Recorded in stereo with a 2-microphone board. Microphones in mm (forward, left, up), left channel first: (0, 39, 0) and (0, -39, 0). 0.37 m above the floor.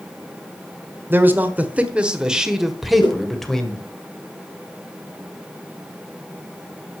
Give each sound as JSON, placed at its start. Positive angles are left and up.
{"t": 1.1, "sound": "a man speaking", "side_deg": -25, "distance_m": 1.4}
{"t": 3.0, "sound": "a whoosh", "side_deg": 70, "distance_m": 5.0}